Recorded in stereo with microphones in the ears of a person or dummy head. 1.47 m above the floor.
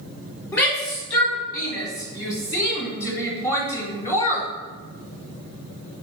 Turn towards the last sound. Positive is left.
turn(degrees=20)  # may be behind; listen again after turning